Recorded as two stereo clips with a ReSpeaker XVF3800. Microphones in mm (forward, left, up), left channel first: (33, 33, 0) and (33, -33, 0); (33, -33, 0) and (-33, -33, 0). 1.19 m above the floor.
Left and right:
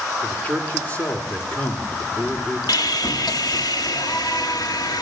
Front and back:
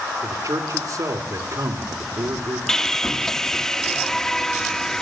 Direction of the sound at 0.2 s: 155° left.